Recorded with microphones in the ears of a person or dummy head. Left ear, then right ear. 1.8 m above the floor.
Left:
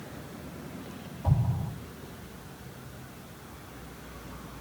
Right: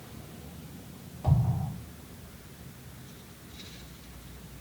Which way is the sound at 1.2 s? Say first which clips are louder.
Right 1 dB; 35° right (ahead or behind).